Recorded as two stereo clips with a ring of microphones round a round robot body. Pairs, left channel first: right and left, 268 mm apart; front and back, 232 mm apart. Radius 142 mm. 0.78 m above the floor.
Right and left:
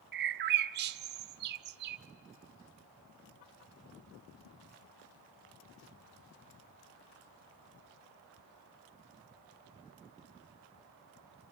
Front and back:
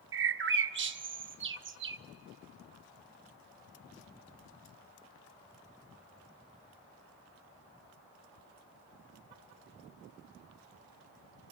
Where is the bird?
140° left, 0.7 m.